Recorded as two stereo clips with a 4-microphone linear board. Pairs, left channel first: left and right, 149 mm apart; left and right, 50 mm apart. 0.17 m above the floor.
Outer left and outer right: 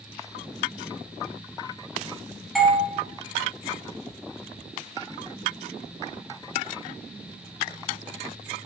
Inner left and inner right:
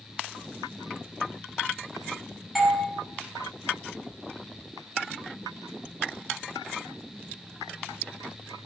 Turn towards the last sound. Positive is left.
turn(degrees=0)  # may be behind; listen again after turning